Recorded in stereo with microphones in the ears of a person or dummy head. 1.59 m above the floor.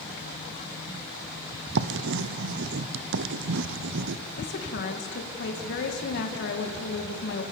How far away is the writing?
About 0.7 m.